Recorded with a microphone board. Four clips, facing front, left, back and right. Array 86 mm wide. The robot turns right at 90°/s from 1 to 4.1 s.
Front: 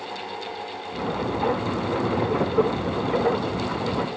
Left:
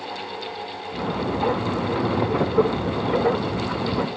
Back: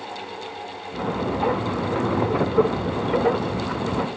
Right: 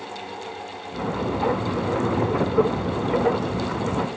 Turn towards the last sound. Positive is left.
No sound to turn to.